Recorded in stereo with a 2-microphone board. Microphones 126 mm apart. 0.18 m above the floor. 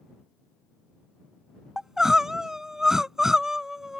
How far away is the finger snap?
I don't hear a finger snap.